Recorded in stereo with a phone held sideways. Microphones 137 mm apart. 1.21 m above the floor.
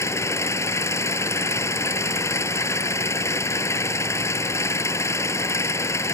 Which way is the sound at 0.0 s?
20° left (ahead or behind).